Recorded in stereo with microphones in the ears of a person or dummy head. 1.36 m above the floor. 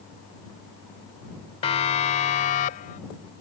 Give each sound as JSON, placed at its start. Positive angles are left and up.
{"t": 1.6, "sound": "a siren", "side_deg": 35}